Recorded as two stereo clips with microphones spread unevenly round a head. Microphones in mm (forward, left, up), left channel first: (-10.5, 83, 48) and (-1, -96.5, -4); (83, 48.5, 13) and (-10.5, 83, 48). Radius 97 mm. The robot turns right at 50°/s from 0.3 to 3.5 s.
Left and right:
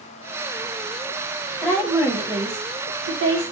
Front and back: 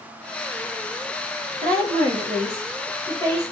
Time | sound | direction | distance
1.6 | a woman speaking | 170° left | 0.9 m